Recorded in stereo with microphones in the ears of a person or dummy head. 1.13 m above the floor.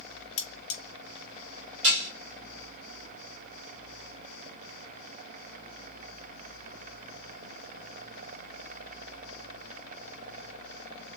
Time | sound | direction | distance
0.4 | cutlery clinking | 35° left (ahead or behind) | 0.7 m
1.8 | dishes clattering | 80° right | 1.8 m